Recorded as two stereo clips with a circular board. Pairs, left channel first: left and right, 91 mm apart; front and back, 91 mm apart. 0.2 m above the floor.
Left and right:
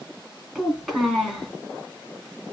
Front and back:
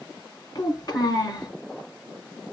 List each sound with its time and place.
0.6 s a child speaking: 5° left, 1.6 m